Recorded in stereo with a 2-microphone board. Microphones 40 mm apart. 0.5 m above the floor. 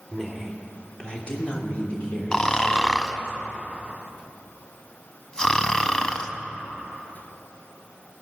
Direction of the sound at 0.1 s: 5° left (ahead or behind).